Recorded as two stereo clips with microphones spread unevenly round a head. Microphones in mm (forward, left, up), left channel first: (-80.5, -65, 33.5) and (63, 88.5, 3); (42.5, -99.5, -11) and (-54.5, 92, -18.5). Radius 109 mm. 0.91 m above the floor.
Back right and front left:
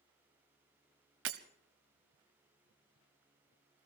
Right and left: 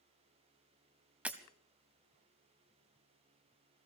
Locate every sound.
1.2 s breaking glass: 35° left, 1.0 m